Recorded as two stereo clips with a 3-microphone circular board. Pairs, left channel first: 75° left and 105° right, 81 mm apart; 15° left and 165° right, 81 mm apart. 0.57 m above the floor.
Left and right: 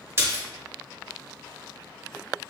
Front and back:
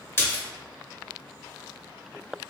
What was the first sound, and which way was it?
A splash, 45° right.